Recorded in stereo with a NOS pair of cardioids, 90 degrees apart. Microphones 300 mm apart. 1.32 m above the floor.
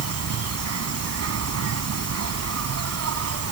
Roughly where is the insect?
Ahead right.